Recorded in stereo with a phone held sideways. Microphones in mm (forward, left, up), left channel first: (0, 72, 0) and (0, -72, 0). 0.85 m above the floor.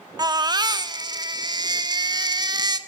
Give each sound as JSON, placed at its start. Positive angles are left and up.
{"t": 0.2, "sound": "a baby crying", "side_deg": -30, "distance_m": 1.2}